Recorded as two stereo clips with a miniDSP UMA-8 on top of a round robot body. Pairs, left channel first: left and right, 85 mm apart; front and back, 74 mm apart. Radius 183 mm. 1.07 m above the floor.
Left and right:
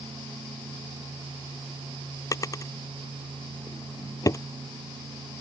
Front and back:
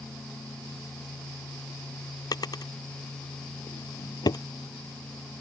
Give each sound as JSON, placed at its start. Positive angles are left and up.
{"t": 2.3, "sound": "a drawer", "azimuth_deg": 35}